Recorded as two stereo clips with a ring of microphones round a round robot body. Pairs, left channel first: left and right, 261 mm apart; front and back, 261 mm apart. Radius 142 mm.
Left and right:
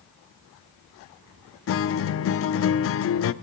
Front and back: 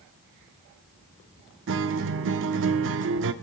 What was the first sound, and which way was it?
A guitar, 130° left.